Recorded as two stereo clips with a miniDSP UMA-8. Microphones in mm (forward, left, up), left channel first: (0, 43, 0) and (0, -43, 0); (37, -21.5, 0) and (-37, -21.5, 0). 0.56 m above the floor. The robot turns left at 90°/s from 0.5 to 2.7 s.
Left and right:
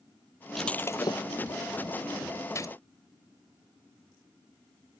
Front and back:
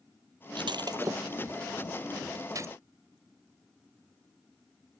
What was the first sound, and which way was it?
Breaking glass, straight behind.